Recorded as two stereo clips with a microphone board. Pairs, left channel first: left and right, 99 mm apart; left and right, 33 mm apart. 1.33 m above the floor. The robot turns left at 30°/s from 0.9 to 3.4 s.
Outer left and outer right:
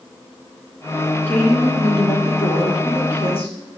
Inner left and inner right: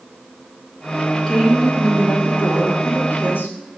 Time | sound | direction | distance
1.3 | a woman speaking | 160° left | 1.6 m